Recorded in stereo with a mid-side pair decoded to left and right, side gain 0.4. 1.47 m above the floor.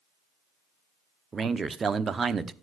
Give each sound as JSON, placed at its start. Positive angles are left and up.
{"t": 1.3, "sound": "a man speaking", "azimuth_deg": -40, "distance_m": 1.0}